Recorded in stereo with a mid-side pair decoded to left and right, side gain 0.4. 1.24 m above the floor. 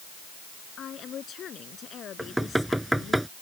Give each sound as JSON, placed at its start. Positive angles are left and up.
{"t": 0.8, "sound": "a woman speaking", "azimuth_deg": 60}
{"t": 2.2, "sound": "knocking", "azimuth_deg": -10}